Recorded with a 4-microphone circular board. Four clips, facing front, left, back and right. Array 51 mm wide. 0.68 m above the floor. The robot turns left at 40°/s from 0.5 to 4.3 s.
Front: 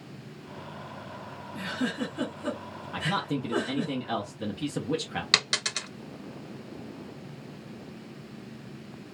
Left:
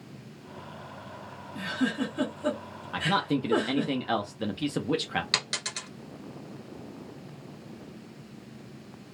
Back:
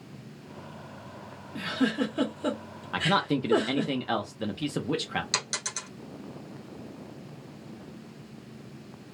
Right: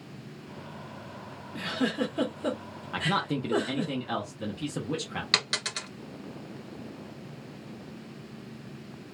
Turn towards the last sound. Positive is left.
turn(degrees=-20)